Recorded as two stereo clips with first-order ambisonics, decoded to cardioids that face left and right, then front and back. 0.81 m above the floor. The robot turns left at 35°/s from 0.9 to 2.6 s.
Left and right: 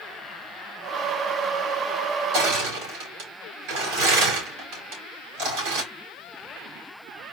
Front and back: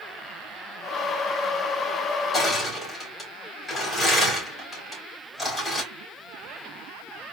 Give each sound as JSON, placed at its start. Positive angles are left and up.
{"t": 2.3, "sound": "crushing", "azimuth_deg": -75, "distance_m": 3.0}